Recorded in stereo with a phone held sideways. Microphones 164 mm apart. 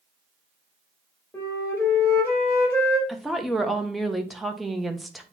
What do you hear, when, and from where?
1.3 s a flute: 15° left (ahead or behind), 2.5 m
3.1 s a woman speaking: centre (ahead or behind), 1.0 m